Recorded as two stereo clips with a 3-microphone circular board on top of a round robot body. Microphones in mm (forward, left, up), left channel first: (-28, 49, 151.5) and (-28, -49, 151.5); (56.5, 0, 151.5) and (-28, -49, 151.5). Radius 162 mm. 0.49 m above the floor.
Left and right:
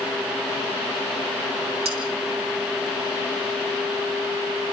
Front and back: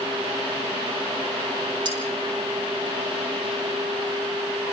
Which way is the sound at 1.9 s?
110° right.